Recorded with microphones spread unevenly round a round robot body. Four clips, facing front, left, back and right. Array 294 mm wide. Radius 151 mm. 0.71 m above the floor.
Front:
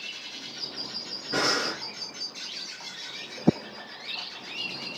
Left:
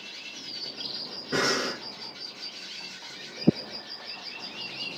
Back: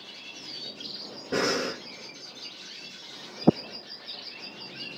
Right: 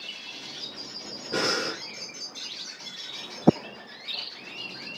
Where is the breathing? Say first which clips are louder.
Left 1 dB, back 1 dB; 175° left, 2.5 m.